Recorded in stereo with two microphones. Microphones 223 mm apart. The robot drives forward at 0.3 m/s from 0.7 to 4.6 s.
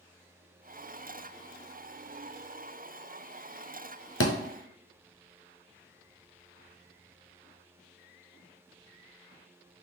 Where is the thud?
80° left, 0.6 m.